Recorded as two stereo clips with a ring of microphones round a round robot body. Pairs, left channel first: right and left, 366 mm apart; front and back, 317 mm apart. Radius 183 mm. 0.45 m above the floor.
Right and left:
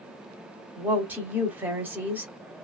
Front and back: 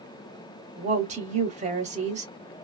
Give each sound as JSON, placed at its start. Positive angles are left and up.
{"t": 0.8, "sound": "a woman speaking", "azimuth_deg": 165, "distance_m": 0.8}